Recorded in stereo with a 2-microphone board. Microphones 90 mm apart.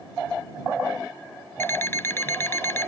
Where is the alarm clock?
25° left (ahead or behind).